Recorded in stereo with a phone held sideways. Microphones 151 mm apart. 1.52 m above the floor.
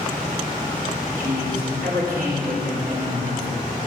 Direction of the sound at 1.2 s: 75° right (ahead or behind).